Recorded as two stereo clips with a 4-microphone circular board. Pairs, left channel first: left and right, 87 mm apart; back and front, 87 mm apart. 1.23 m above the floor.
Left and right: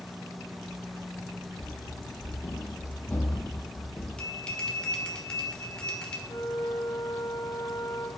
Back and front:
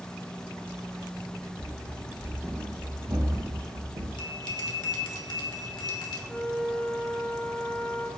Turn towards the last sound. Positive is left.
turn(degrees=100)